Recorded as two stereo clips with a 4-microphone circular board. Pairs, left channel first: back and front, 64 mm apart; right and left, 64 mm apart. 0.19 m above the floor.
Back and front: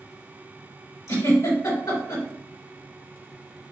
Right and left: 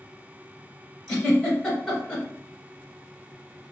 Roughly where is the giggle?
Behind.